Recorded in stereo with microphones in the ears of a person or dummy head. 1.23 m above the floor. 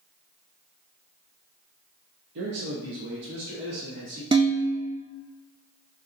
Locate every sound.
2.4 s a man speaking: 60° right (ahead or behind), 1.2 m; by 4.2 s 55° right (ahead or behind), 2 m
4.3 s dishes clattering: 25° right (ahead or behind), 0.9 m